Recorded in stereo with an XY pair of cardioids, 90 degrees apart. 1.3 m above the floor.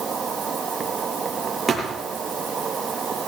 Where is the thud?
35° right, 6 m.